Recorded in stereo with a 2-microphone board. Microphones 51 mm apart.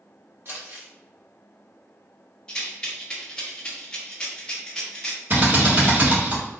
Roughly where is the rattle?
Centre.